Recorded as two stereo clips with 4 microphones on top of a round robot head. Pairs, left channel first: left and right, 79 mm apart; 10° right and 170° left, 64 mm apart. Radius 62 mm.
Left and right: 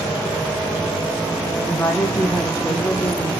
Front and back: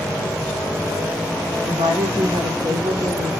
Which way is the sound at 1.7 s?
155° left.